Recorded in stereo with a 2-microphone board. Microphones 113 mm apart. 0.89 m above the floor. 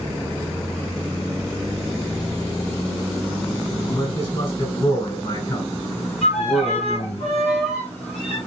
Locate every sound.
3.9 s a man speaking: 45° left (ahead or behind), 4 m; by 7.2 s 50° left (ahead or behind), 5.5 m
6.2 s a violin: 70° left (ahead or behind), 6.5 m